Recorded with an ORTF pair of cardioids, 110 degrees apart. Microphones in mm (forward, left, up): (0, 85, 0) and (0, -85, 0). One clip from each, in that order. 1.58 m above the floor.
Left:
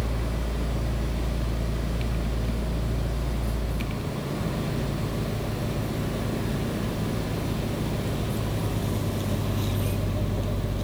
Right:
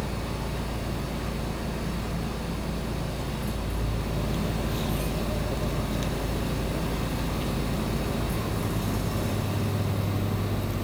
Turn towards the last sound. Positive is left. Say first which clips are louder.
# even
turn(degrees=-65)